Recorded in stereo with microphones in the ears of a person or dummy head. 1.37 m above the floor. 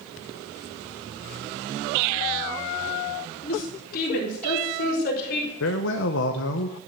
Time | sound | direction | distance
3.4 | a woman speaking | 50° left (ahead or behind) | 3 m
5.6 | a man speaking | 75° left (ahead or behind) | 0.9 m